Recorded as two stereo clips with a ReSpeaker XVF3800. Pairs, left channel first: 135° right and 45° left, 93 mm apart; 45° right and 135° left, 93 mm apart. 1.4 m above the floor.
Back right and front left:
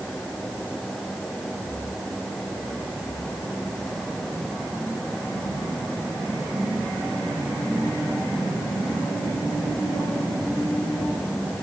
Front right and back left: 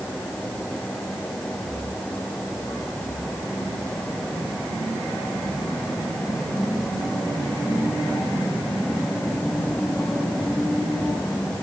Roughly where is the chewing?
No chewing in this recording.